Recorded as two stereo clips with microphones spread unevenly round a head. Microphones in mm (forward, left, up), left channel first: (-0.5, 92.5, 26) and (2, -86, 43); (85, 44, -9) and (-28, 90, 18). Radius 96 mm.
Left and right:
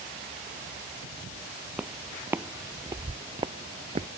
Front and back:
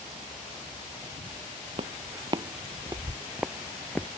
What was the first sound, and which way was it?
Footsteps, 165° right.